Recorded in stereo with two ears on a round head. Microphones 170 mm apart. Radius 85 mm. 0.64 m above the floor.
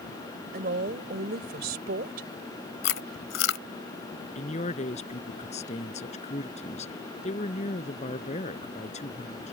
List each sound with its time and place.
0.5 s a woman speaking: 50° right (ahead or behind)
2.8 s chewing: 70° left (ahead or behind)
4.3 s a man speaking: 35° left (ahead or behind)